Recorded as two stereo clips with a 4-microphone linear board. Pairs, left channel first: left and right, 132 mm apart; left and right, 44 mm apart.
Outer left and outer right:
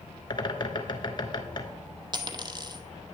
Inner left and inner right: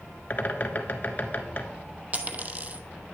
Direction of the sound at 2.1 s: 35° right (ahead or behind).